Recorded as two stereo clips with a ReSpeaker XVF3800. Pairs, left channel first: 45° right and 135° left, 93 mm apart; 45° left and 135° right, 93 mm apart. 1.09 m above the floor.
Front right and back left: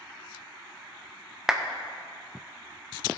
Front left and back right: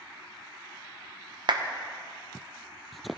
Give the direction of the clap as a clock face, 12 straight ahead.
5 o'clock.